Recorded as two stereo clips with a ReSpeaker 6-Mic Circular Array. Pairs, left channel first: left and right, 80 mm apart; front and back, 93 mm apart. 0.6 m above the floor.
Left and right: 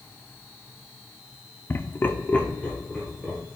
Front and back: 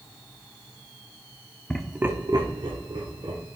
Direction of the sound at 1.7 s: 60° left.